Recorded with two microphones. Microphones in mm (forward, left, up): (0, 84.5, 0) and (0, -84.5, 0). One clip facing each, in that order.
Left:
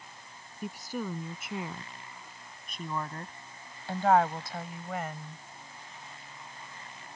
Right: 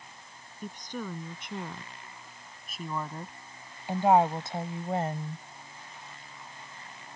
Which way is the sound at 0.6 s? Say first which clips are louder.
Left 2 dB; 10° left (ahead or behind).